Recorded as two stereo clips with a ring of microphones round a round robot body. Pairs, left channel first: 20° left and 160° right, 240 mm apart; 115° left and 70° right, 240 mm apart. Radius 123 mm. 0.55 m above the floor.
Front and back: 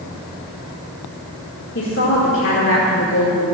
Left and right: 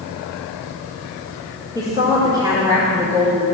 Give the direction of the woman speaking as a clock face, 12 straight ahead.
12 o'clock.